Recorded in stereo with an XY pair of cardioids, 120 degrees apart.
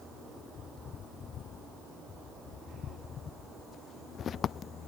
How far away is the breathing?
I don't hear breathing.